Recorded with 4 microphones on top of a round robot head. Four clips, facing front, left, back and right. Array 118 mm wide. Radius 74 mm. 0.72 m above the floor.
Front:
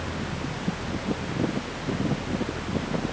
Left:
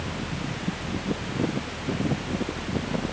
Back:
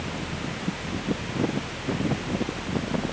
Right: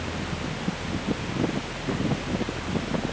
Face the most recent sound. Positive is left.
No sound to turn to.